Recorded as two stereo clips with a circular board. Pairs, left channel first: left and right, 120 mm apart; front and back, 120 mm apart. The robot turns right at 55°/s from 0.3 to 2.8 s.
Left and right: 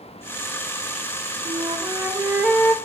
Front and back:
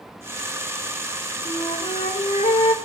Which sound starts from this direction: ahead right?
A flute, at 1.4 s.